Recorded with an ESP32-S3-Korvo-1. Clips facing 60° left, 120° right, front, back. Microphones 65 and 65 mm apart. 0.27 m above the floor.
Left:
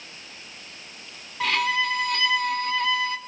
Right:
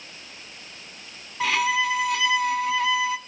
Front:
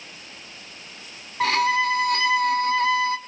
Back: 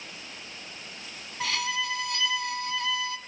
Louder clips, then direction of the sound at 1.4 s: Right 1 dB, front 10 dB; 35° right.